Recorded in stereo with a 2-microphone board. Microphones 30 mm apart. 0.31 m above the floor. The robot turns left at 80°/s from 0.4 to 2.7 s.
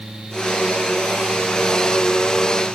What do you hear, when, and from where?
Only background noise.